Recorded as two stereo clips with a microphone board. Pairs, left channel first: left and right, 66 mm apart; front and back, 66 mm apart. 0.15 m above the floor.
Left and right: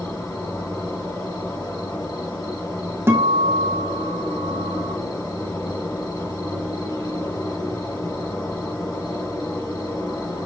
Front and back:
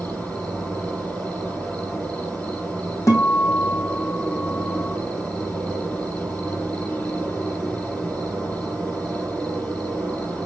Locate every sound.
0.0 s an insect: 70° left, 6 m
3.1 s a guitar: 40° right, 2.5 m